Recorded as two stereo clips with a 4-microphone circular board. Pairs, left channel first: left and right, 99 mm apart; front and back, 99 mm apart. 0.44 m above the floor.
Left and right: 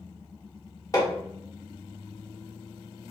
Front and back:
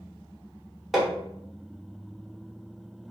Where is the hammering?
90° left, 1.2 m.